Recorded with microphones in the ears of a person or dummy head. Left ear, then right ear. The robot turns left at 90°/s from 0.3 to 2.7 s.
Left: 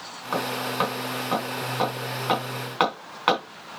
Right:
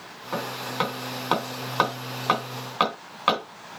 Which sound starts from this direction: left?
Hammering, at 0.3 s.